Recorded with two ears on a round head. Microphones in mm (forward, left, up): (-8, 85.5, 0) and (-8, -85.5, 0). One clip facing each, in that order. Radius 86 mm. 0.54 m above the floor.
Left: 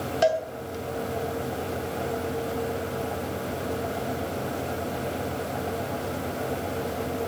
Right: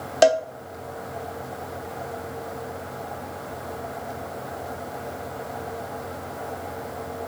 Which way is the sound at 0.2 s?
60° right (ahead or behind).